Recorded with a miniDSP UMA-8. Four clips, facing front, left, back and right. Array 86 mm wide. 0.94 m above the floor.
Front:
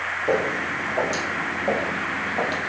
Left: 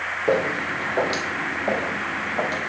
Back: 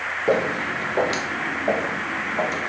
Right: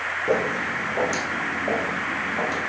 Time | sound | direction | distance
0.3 | footsteps | 145° left | 1.1 m